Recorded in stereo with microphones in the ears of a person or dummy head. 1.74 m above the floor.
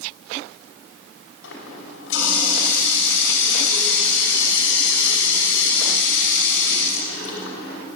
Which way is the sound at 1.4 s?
75° left (ahead or behind).